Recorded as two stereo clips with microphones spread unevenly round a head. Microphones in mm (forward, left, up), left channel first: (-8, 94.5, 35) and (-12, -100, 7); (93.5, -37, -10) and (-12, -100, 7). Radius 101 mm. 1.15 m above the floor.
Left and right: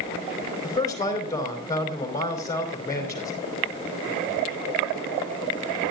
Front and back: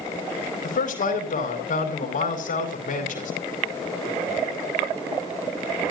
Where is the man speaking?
15° left, 4.5 m.